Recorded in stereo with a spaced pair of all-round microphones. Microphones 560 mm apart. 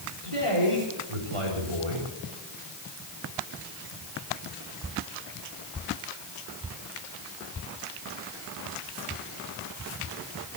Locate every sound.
0.2 s a man speaking: 65° right (ahead or behind), 4 m